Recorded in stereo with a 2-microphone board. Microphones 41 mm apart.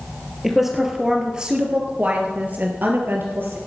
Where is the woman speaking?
5° right (ahead or behind), 3 m; by 3.6 s 60° right (ahead or behind), 3 m.